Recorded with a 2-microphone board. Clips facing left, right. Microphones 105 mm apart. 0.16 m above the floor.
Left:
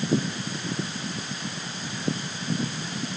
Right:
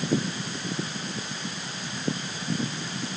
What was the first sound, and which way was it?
Only background noise.